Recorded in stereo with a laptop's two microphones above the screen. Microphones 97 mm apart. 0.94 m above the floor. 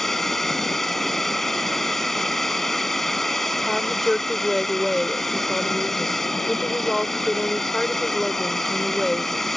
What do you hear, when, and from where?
0.0 s a drone: 5° left (ahead or behind)
3.6 s a woman speaking: centre (ahead or behind)